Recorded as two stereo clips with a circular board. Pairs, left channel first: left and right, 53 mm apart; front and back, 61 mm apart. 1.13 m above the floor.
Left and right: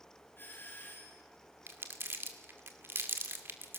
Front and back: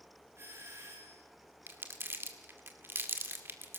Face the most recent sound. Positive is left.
turn(degrees=-130)